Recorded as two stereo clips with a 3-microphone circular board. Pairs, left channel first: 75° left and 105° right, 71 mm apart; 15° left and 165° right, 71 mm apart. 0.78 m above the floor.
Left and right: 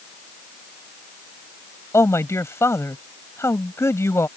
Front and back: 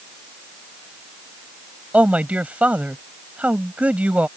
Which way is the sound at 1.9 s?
125° left.